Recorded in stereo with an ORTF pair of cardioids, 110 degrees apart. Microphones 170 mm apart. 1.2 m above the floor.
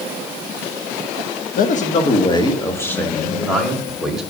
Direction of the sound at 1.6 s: 55° left.